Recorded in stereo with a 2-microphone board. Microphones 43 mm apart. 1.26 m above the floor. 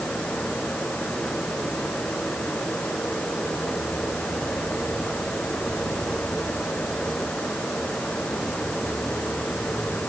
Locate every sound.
Only background noise.